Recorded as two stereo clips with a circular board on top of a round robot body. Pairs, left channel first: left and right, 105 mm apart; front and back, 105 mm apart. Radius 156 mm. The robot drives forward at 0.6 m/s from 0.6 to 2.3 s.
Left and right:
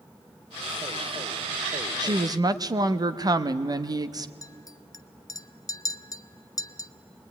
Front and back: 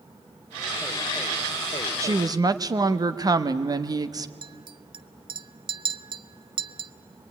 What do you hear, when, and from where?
2.0 s a woman speaking: 125° right, 1.1 m; by 4.3 s 135° right, 1.2 m
4.4 s a clink: 145° left, 0.7 m